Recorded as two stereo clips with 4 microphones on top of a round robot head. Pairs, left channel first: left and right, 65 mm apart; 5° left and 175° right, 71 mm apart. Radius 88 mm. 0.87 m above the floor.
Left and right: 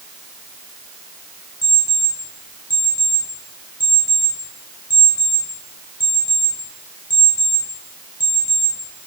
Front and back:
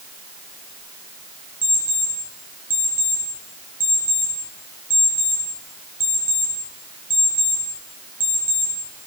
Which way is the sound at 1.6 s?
125° left.